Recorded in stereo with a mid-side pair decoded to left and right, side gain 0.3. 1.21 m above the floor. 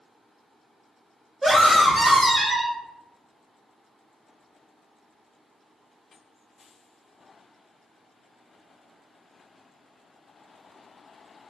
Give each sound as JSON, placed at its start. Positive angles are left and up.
{"t": 1.4, "sound": "a scream", "azimuth_deg": -25, "distance_m": 1.9}